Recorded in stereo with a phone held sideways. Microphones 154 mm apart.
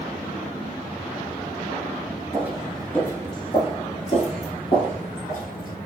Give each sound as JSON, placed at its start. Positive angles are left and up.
{"t": 2.3, "sound": "footsteps", "side_deg": -20, "distance_m": 1.1}